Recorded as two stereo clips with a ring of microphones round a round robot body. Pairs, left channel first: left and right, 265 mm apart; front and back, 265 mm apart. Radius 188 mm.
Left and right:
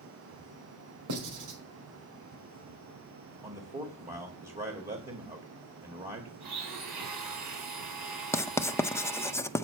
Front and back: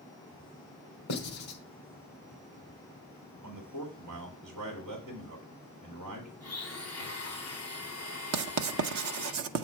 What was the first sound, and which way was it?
Writing, 55° right.